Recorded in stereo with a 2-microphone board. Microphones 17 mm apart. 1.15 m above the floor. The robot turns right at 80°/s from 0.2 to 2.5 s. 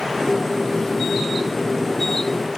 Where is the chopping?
No chopping in this recording.